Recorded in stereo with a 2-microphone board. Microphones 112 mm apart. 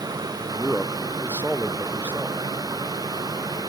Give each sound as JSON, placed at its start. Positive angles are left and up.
{"t": 0.4, "sound": "a man speaking", "side_deg": -15}